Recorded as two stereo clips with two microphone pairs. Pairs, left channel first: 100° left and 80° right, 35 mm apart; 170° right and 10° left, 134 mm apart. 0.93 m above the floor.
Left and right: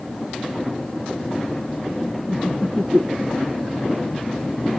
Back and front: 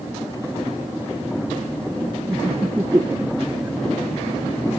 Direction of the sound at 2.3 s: 60° right.